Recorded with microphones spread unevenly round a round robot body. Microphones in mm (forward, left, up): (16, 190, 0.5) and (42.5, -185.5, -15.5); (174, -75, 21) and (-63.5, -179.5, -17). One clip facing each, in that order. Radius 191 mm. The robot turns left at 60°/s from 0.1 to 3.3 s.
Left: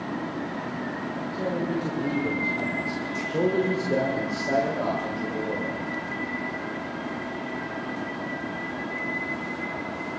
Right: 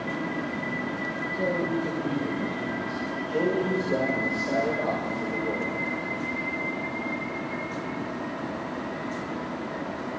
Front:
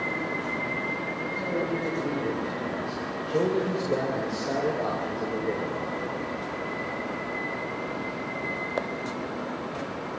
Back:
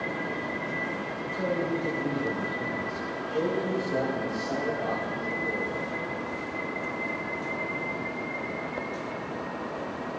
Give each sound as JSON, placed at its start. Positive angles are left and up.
{"t": 1.3, "sound": "a man speaking", "azimuth_deg": 170, "distance_m": 2.5}